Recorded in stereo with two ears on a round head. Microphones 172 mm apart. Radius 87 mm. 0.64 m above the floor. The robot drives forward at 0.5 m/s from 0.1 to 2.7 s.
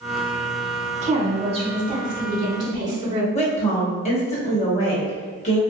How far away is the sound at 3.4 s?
About 1.1 m.